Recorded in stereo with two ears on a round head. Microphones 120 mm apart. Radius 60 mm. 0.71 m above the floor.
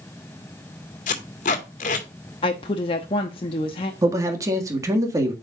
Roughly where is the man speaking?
Right.